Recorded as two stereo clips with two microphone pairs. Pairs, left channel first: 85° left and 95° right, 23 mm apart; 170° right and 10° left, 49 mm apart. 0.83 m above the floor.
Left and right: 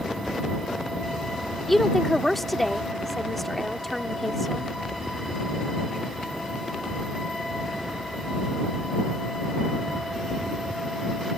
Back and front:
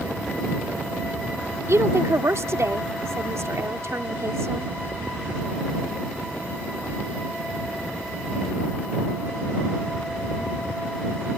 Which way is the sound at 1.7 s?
Straight ahead.